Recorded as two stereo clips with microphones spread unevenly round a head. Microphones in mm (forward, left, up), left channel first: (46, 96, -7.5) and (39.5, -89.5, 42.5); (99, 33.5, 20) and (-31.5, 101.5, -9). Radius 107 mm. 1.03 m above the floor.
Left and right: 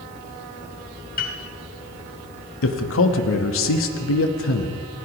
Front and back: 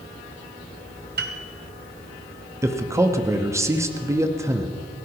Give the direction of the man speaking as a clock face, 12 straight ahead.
9 o'clock.